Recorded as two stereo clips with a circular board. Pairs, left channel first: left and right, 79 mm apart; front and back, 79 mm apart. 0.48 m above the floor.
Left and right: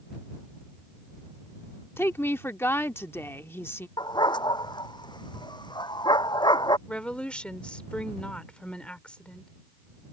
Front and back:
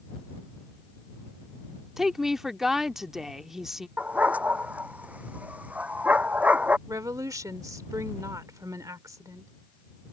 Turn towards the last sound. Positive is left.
turn(degrees=160)